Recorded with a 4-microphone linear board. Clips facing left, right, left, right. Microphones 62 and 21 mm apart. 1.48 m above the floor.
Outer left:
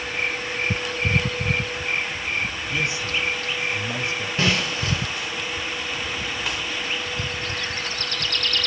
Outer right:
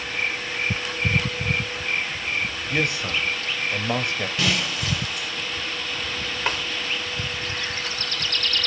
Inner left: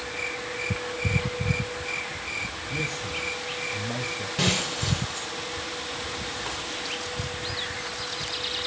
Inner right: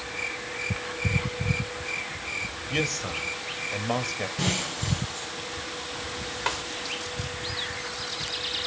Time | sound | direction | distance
2.7 | a man speaking | 60° right (ahead or behind) | 2.5 m
4.4 | breaking glass | 35° left (ahead or behind) | 5.5 m
6.5 | a snare drum | 45° right (ahead or behind) | 2 m